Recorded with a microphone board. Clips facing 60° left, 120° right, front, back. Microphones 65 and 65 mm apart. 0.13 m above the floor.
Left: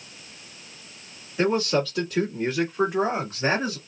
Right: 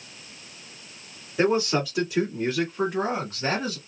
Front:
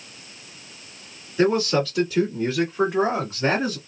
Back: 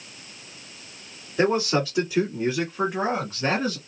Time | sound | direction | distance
1.4 | a man speaking | 155° right | 1.8 m